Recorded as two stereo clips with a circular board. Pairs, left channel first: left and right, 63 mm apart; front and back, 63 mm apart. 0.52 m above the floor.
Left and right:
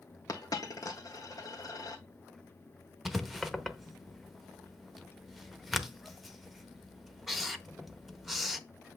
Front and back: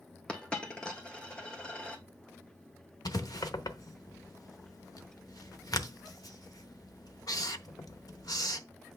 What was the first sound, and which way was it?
A dropped coin, 75° left.